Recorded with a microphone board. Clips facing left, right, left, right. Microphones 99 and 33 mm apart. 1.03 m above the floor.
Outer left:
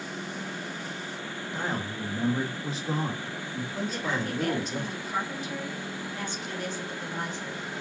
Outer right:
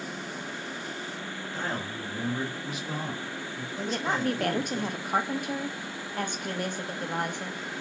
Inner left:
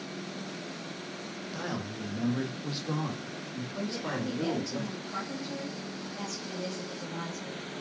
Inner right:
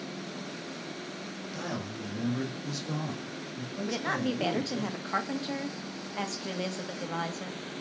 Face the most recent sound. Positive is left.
turn(degrees=-55)  # may be behind; listen again after turning